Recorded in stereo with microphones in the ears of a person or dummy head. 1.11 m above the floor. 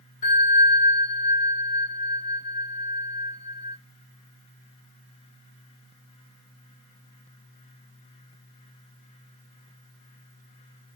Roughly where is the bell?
Left.